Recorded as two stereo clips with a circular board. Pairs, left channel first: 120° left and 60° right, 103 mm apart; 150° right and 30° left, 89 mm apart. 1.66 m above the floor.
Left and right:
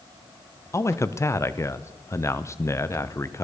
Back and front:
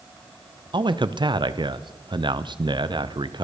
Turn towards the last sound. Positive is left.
turn(degrees=60)